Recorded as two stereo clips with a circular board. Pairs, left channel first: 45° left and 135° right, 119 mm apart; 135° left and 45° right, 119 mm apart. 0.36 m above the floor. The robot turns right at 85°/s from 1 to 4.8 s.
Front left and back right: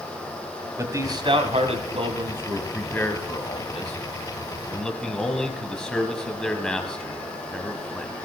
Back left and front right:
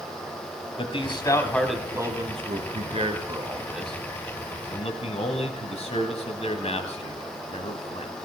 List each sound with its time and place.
0.8 s a man speaking: 165° left, 2.5 m; by 8.1 s 130° left, 2.5 m